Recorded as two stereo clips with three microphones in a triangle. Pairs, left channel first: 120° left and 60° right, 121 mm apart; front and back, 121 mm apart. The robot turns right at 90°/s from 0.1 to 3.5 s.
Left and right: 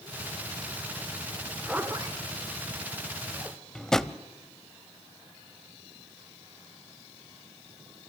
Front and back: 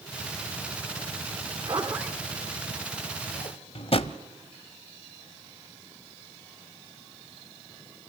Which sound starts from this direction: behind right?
A zipper, at 1.6 s.